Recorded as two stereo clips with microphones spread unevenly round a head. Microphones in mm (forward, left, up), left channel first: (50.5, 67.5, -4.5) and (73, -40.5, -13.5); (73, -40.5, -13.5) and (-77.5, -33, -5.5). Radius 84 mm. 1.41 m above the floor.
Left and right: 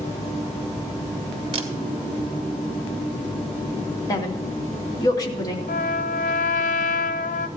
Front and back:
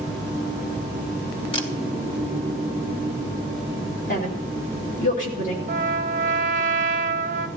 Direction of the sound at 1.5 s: 55° right.